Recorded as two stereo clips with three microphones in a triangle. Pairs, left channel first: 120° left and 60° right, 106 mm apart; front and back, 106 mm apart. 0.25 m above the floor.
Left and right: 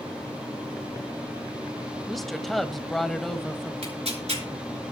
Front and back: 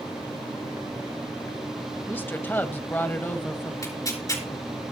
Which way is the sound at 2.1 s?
35° left.